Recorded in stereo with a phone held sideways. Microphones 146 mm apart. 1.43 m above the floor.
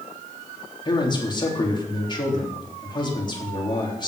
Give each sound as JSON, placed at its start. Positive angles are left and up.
{"t": 0.8, "sound": "a man speaking", "side_deg": 30, "distance_m": 3.5}